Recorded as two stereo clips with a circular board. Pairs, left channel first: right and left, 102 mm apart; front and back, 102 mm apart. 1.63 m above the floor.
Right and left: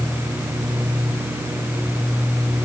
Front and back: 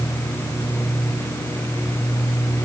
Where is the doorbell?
No doorbell in this recording.